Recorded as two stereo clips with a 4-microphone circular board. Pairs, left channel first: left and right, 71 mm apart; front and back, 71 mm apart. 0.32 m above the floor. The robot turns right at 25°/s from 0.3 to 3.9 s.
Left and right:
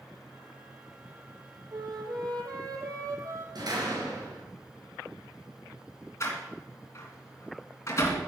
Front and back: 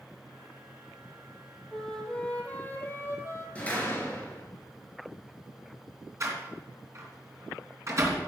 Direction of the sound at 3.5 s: 70° right.